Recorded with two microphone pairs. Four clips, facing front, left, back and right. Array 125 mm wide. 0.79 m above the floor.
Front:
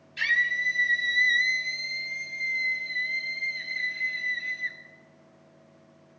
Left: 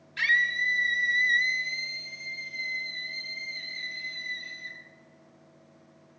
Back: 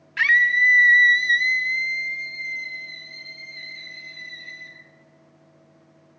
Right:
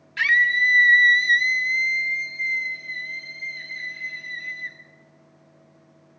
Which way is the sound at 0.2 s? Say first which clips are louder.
Right 6 dB, back 8 dB; 160° right.